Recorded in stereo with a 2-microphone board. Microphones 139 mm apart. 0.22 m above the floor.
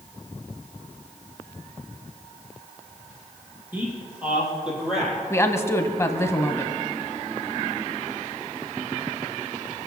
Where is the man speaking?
15° right (ahead or behind), 6.5 m; by 5.2 s centre (ahead or behind), 7.5 m.